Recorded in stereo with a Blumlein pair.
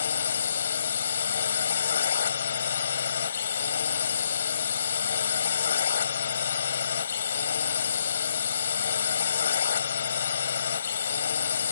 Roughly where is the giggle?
No giggle in this recording.